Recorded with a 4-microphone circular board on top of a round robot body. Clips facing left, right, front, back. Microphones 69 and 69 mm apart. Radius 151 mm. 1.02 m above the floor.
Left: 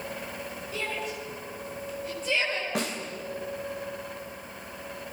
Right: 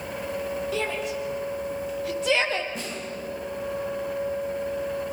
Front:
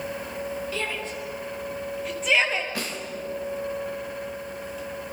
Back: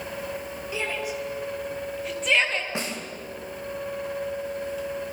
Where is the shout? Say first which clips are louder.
Right 5 dB, back 1 dB; 105° right, 6 m; by 2.6 s 85° right, 4 m.